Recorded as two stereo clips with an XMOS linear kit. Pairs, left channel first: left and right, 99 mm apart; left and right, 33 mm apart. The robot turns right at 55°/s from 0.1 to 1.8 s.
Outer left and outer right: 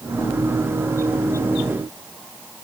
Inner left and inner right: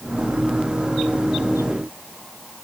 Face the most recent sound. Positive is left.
No sound to turn to.